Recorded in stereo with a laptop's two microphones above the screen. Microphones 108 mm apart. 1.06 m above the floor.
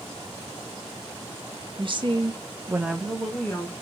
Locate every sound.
1.8 s a woman speaking: 55° right (ahead or behind), 0.9 m; by 3.7 s 15° left (ahead or behind), 0.9 m